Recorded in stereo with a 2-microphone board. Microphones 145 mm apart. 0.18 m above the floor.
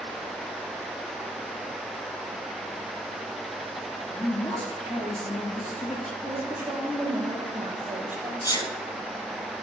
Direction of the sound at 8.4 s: 25° left (ahead or behind).